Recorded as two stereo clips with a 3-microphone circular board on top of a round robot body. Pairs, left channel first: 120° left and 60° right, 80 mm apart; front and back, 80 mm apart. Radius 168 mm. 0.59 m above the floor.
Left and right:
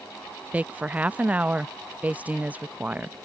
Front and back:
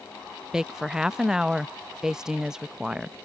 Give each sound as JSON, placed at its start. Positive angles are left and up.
{"t": 0.5, "sound": "a woman speaking", "azimuth_deg": -105}